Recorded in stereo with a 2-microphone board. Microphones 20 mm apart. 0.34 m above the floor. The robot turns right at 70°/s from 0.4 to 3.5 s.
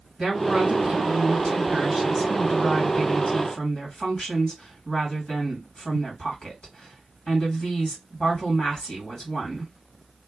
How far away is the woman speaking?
About 2.0 m.